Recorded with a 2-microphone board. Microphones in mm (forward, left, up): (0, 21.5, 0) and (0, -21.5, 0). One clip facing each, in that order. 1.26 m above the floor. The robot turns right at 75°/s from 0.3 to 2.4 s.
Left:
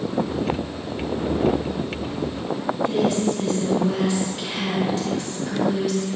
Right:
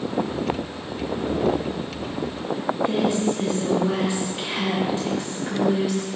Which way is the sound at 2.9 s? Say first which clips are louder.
Left 1 dB; 25° right (ahead or behind).